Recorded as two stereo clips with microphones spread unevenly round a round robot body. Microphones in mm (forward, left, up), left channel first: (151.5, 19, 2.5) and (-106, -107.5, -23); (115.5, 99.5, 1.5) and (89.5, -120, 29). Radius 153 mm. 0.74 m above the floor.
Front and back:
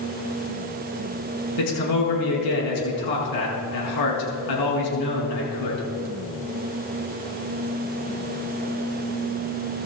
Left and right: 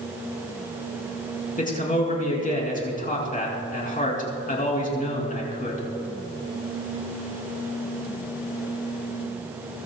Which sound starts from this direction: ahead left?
A man speaking, at 1.6 s.